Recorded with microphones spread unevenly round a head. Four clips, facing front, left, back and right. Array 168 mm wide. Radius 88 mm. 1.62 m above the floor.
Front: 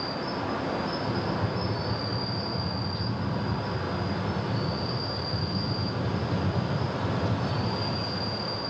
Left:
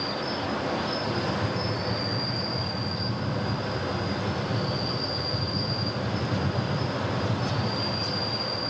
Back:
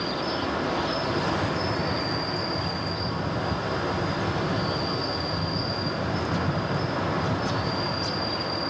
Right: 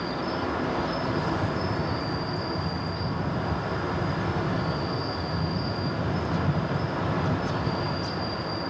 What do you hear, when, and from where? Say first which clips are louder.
0.0 s an insect: right 1 dB, back 3 dB; 160° right, 6 m